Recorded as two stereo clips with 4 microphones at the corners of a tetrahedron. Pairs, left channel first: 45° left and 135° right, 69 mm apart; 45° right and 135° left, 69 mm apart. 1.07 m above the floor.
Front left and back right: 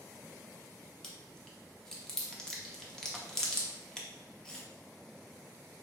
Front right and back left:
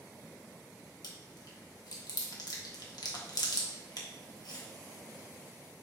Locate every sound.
1.0 s chewing: 35° right, 0.6 m